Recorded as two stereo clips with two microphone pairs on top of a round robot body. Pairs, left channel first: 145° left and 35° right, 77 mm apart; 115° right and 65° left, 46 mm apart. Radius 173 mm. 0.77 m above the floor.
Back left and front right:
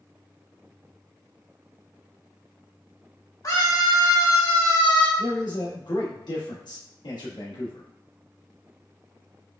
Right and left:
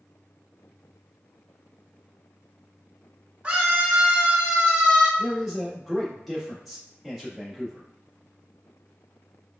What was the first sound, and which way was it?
A scream, 125° left.